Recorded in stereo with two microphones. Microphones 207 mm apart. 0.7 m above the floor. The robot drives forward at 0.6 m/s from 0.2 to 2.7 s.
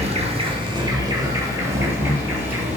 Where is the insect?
30° right (ahead or behind), 0.8 m; by 2.8 s 10° right (ahead or behind), 2 m.